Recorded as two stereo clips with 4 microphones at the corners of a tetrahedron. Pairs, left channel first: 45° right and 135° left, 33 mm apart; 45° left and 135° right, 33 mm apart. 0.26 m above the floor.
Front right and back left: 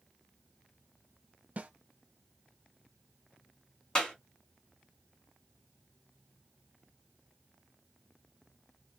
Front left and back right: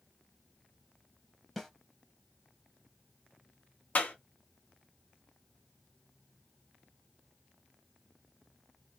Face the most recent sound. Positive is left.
turn(degrees=20)